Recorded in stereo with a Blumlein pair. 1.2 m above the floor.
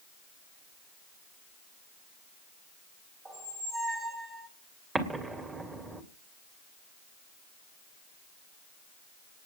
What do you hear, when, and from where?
3.2 s a squeak: 15° right, 4 m
5.0 s an explosion: 15° right, 2.5 m